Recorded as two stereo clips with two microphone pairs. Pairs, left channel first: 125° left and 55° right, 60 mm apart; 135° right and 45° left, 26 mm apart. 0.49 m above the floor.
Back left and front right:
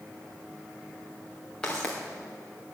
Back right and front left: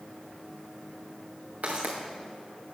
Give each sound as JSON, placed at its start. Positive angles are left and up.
{"t": 1.6, "sound": "footsteps", "azimuth_deg": 50, "distance_m": 2.5}